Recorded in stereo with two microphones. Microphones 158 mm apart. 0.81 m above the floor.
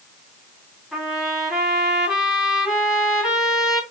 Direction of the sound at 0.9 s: Centre (ahead or behind).